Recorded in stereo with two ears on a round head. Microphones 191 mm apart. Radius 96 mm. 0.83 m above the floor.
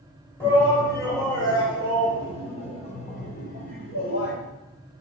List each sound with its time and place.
0.4 s a shout: 10° left (ahead or behind), 4 m; by 4.4 s 50° left (ahead or behind), 3 m